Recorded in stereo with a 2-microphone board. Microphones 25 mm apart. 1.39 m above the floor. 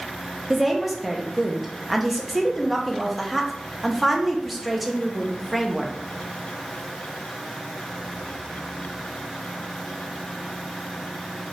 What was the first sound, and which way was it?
A woman speaking, 5° right (ahead or behind).